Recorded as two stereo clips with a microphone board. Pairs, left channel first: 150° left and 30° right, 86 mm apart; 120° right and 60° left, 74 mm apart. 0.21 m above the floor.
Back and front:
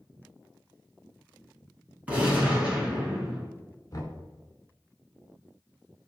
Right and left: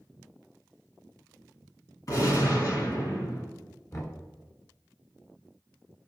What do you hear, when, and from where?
2.1 s a gunshot: 100° right, 2.5 m
3.9 s knocking: 165° right, 1.6 m